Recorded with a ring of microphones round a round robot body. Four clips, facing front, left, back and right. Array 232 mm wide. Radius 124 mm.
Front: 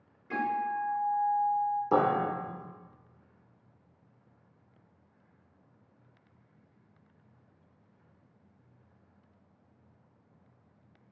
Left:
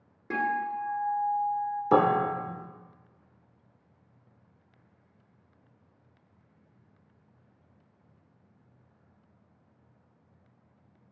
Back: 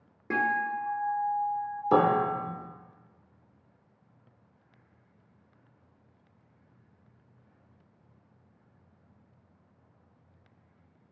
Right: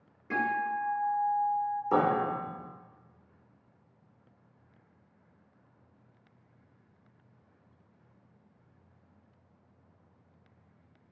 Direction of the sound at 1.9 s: 110° left.